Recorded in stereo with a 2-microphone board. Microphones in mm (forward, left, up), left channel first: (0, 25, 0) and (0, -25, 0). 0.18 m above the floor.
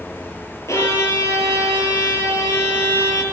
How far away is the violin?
About 5 m.